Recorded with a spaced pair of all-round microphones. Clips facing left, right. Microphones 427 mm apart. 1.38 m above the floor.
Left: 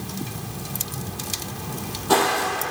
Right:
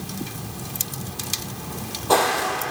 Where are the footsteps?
30° left (ahead or behind), 3 m.